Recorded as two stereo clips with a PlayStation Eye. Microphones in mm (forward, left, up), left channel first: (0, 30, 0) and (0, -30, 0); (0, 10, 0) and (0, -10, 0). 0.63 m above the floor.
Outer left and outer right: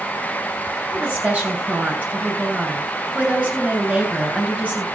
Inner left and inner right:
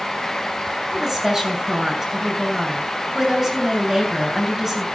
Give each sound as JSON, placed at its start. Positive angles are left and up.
{"t": 0.9, "sound": "a woman speaking", "side_deg": -25, "distance_m": 7.0}